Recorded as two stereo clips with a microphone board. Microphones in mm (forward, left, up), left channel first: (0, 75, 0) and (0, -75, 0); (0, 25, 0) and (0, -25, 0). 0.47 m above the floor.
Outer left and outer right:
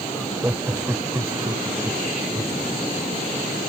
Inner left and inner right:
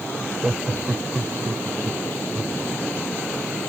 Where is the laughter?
10° right (ahead or behind); by 2.6 s 20° right (ahead or behind).